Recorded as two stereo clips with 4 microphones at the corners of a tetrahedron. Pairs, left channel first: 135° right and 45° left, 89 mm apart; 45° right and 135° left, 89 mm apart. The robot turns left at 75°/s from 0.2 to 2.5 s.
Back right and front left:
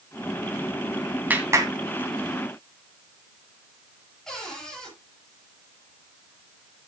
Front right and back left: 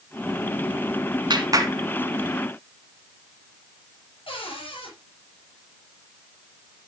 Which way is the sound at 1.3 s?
115° left.